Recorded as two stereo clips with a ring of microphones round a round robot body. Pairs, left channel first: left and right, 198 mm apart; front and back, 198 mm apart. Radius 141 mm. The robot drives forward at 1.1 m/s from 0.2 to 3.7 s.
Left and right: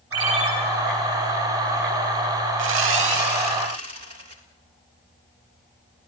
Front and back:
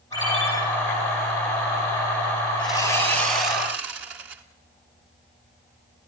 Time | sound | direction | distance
0.1 | a ringtone | 80° right | 6.5 m
2.6 | sawing | 80° right | 0.6 m